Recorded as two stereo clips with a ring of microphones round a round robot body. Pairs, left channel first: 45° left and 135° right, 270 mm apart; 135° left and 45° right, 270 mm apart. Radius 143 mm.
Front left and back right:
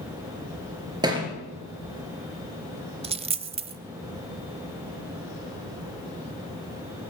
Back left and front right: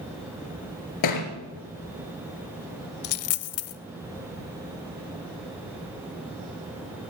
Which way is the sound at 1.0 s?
150° left.